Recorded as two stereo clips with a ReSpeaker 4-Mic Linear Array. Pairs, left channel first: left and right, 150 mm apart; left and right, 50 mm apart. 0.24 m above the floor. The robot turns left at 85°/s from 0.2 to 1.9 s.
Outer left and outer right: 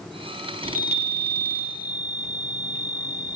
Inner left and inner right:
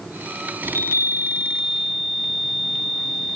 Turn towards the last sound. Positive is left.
turn(degrees=160)